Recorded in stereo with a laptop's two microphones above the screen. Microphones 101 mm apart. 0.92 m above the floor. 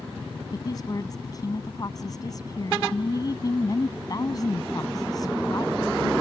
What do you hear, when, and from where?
0.5 s a woman speaking: 35° left (ahead or behind)